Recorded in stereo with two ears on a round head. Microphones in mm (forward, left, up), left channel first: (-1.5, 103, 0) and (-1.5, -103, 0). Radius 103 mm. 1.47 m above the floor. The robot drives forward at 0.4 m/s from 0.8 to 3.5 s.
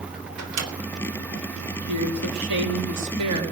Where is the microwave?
80° right, 3.5 m.